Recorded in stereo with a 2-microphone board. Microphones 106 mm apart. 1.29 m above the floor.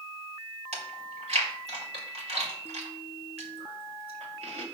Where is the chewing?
80° right, 2.5 m.